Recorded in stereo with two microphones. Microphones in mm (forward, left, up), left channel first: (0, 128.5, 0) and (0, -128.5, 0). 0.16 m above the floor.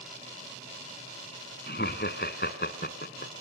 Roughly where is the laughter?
Left.